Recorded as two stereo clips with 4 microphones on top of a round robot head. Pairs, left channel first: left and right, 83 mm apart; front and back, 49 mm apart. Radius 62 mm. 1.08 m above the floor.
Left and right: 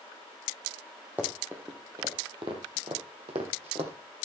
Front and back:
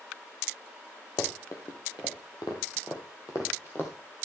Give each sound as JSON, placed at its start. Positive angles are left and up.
{"t": 1.2, "sound": "running footsteps", "azimuth_deg": -15, "distance_m": 2.0}